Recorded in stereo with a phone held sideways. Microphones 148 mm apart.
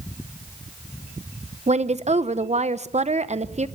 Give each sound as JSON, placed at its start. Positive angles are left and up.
{"t": 1.7, "sound": "a woman speaking", "side_deg": -50, "distance_m": 0.7}